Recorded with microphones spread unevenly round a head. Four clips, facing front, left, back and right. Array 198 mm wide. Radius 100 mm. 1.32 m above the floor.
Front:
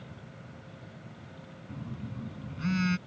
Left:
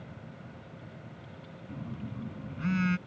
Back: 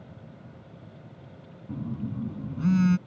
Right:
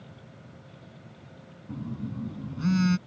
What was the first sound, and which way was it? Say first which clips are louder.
A phone buzzing: right 6 dB, back 8 dB; 150° right.